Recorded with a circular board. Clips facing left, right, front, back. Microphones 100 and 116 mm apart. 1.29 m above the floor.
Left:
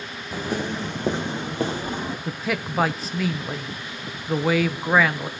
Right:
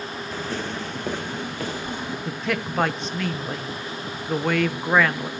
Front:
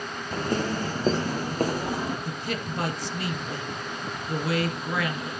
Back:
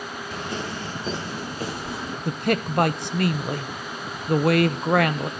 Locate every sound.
0.3 s footsteps: 20° left, 1.7 m; by 2.1 s 35° left, 2.5 m
2.2 s a man speaking: 175° left, 0.9 m